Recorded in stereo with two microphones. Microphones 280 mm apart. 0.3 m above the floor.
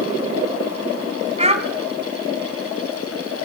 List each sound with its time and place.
1.4 s a child speaking: 25° right (ahead or behind), 2.0 m